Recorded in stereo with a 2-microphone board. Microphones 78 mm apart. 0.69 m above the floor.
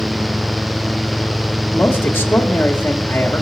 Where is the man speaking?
25° left (ahead or behind), 1.8 m.